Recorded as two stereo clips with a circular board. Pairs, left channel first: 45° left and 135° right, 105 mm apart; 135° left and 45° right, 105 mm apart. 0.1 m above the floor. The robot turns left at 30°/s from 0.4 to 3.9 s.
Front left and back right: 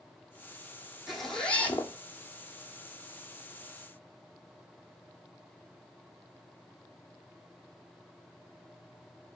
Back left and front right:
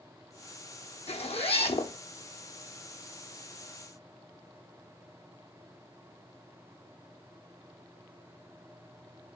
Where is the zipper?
135° left, 0.9 m; by 1.9 s 110° left, 0.9 m.